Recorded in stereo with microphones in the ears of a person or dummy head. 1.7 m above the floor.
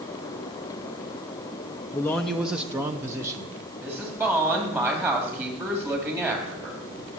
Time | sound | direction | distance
1.9 | a man speaking | 15° left (ahead or behind) | 0.6 m
3.8 | a woman speaking | 15° right (ahead or behind) | 3.5 m